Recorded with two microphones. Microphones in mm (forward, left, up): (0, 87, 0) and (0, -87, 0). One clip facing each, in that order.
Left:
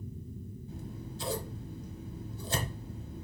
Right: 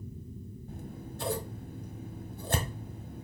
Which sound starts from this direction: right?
Scissors, at 0.7 s.